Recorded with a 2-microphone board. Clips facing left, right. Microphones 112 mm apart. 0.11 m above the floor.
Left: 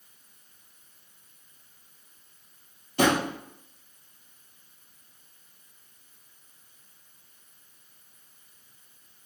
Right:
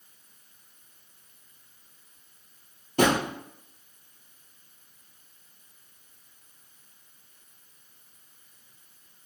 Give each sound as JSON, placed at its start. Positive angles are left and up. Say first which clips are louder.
{"t": 3.0, "sound": "a drawer", "louder": "even", "side_deg": -50, "distance_m": 1.9}